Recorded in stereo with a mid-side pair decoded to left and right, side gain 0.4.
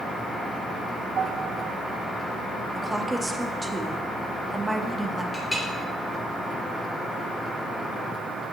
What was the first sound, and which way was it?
A piano, 60° right.